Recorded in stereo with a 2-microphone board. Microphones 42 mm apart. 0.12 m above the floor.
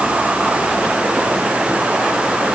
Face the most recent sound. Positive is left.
No sound to turn to.